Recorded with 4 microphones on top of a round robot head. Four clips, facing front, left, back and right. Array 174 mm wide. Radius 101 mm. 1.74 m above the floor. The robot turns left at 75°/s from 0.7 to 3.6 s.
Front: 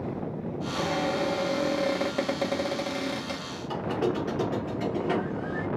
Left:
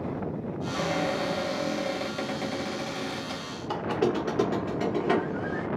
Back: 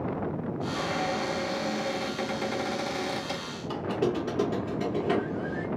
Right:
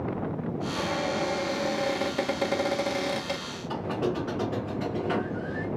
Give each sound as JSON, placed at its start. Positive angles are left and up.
{"t": 0.7, "sound": "a cupboard door", "azimuth_deg": 90, "distance_m": 2.0}
{"t": 3.7, "sound": "a squeak", "azimuth_deg": 100, "distance_m": 0.9}